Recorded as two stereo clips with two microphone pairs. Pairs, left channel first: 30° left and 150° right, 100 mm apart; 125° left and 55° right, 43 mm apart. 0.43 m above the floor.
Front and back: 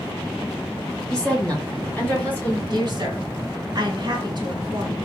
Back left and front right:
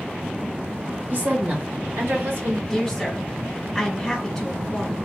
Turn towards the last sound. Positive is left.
turn(degrees=-155)